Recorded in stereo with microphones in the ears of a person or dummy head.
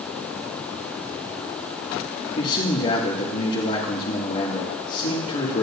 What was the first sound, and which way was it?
A man speaking, 45° left (ahead or behind).